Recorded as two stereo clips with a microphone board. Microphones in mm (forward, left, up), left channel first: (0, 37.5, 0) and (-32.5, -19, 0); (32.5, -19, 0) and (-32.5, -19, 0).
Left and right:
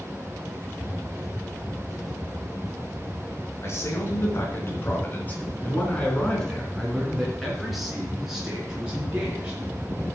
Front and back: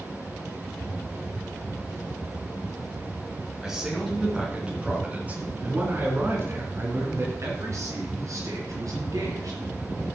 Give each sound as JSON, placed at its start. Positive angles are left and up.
{"t": 3.6, "sound": "a man speaking", "azimuth_deg": 95, "distance_m": 4.0}